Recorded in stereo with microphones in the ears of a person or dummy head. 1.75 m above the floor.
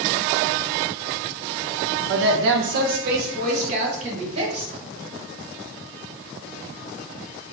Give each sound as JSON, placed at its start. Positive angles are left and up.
{"t": 2.1, "sound": "a woman speaking", "side_deg": -80, "distance_m": 0.7}